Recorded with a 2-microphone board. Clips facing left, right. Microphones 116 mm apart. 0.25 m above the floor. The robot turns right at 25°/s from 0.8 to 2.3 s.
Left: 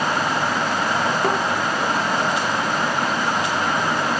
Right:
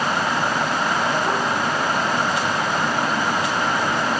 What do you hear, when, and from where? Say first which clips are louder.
1.2 s a thud: left 2 dB; 70° left (ahead or behind), 1.8 m; by 1.4 s 65° left (ahead or behind), 1.8 m